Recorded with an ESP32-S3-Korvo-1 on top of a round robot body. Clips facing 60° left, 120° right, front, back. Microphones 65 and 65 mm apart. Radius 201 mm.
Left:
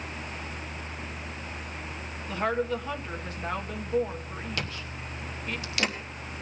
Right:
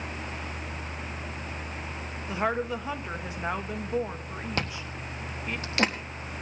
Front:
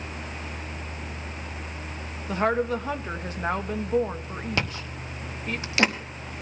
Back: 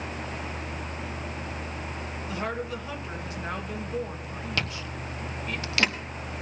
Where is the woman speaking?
50° right, 1.4 m.